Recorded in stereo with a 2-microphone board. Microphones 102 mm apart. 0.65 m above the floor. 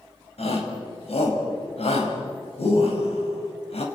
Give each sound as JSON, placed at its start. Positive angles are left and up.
{"t": 0.4, "sound": "a shout", "side_deg": 75, "distance_m": 5.0}